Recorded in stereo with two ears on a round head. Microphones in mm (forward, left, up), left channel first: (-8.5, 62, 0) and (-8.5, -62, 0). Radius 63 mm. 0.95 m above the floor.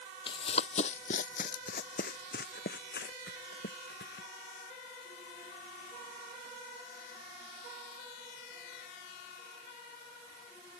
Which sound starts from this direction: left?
Running footsteps, at 0.3 s.